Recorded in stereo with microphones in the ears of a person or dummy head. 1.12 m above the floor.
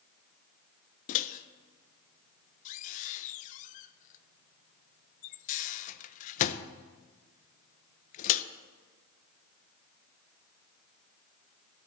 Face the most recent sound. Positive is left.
turn(degrees=45)  # may be behind; listen again after turning